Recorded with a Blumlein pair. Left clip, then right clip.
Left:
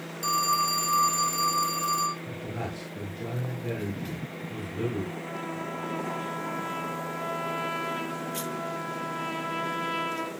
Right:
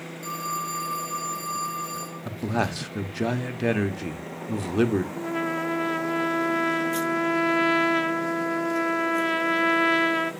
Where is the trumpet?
65° right, 0.6 m.